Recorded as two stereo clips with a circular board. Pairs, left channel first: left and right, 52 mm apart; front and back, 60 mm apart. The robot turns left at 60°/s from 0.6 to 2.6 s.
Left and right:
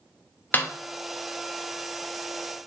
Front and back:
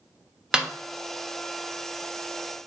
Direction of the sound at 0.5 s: 105° left.